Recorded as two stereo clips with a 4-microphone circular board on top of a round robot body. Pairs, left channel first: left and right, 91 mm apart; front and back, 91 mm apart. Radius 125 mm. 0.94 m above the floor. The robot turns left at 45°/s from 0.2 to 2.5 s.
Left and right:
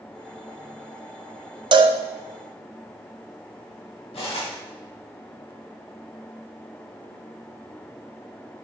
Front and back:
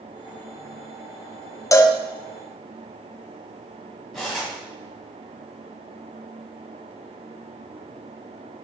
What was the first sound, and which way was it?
A cowbell, 55° right.